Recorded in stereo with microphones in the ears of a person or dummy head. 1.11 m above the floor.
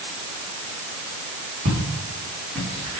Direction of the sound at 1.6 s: 55° right (ahead or behind).